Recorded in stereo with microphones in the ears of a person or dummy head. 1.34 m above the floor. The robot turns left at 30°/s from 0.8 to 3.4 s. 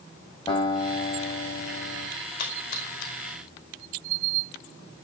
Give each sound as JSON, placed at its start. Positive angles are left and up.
{"t": 0.5, "sound": "a guitar", "azimuth_deg": 155, "distance_m": 6.0}
{"t": 2.4, "sound": "a splash", "side_deg": 55, "distance_m": 5.0}